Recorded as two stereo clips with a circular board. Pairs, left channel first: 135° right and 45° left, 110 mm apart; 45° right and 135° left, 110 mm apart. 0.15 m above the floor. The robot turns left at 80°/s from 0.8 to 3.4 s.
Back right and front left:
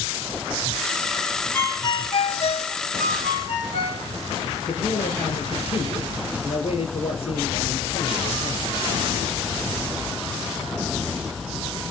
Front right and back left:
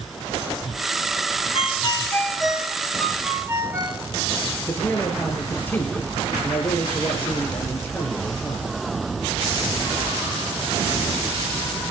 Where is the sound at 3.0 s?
125° right, 8 m; by 4.0 s 160° right, 8 m.